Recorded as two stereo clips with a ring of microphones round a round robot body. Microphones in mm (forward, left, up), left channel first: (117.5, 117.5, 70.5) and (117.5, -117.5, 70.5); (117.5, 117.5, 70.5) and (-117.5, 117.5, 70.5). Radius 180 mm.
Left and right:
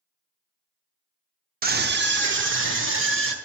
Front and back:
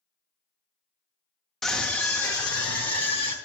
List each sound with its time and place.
1.6 s a scream: 90° right, 0.9 m; by 3.3 s 70° right, 1.8 m